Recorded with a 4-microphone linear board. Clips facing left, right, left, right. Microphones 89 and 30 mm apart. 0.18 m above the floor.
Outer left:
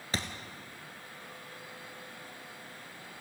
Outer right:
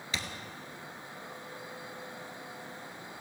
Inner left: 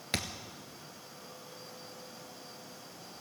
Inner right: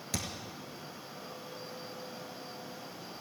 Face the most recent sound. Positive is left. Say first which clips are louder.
# outer left 3 dB, inner left 3 dB
turn(degrees=40)  # may be behind; listen again after turning